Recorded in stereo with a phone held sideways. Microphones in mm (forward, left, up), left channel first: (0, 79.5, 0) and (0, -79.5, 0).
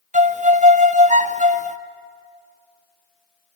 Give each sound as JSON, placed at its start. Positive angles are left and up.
{"t": 0.1, "sound": "a violin", "side_deg": -50, "distance_m": 0.6}